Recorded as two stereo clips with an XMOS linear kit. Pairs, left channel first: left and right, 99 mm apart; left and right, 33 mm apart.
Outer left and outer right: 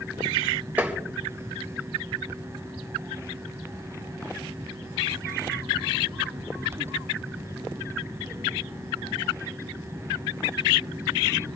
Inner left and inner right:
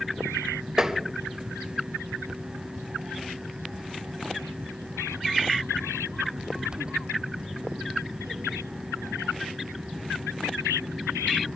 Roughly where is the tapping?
Centre.